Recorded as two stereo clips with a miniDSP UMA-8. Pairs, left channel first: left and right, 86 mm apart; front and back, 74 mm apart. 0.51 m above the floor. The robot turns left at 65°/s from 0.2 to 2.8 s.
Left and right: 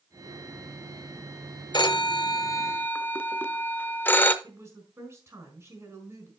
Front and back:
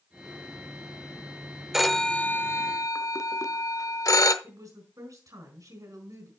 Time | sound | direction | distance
1.7 | a phone ringing | 95° left | 0.6 m
4.4 | a woman speaking | 150° right | 5 m